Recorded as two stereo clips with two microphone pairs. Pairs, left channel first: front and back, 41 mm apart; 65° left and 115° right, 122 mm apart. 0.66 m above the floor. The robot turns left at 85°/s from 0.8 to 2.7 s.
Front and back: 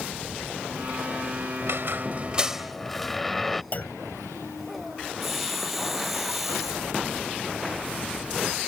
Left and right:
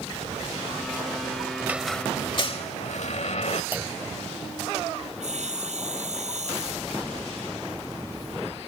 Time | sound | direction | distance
1.6 | a squeak | 175° left | ?
3.7 | a clunk | 40° right | ?
5.2 | sawing | 95° right | ?